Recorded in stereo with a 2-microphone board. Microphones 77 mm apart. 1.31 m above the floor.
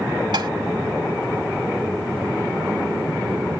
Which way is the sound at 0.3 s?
65° right (ahead or behind).